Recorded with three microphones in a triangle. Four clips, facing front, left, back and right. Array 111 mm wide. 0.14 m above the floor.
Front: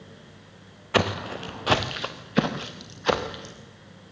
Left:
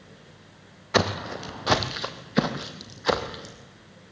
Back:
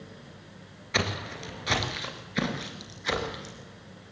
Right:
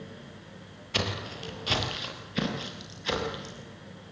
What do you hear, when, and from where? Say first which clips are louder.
0.9 s footsteps: left 9 dB, front 7 dB; 50° left, 2.5 m; by 3.5 s 40° left, 4.5 m